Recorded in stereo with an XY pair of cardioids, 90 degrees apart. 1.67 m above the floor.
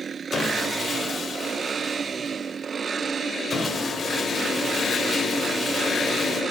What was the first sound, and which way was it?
Sawing, 40° left.